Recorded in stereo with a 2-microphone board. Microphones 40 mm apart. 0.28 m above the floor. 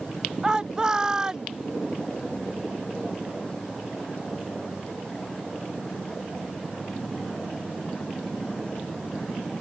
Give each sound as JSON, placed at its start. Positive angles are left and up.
{"t": 0.4, "sound": "a shout", "side_deg": -20}